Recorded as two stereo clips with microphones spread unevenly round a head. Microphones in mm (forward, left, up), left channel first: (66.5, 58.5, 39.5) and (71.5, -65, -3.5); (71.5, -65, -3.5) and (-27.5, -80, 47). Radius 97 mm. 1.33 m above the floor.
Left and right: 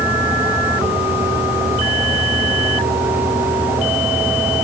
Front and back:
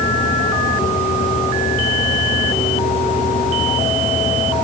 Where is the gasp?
I don't hear a gasp.